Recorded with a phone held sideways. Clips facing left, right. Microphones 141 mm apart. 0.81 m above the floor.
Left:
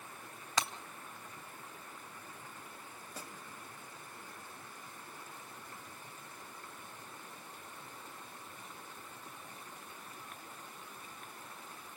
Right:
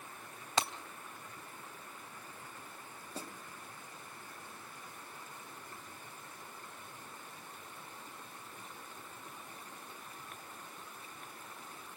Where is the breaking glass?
30° right (ahead or behind), 1.6 m.